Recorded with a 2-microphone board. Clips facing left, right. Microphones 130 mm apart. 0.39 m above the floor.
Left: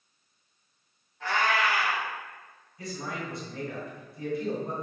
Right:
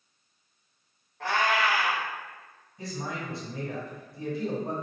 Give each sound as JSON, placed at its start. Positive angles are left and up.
{"t": 1.2, "sound": "a cat meowing", "side_deg": -55, "distance_m": 1.0}
{"t": 2.8, "sound": "a man speaking", "side_deg": -30, "distance_m": 2.0}